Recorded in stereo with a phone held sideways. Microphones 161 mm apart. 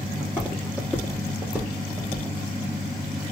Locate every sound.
0.2 s footsteps: 15° left (ahead or behind), 2 m; by 2.3 s 20° right (ahead or behind), 2 m